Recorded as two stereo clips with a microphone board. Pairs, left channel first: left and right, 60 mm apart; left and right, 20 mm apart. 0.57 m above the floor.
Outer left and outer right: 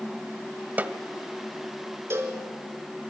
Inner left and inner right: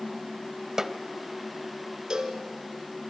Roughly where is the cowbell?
Right.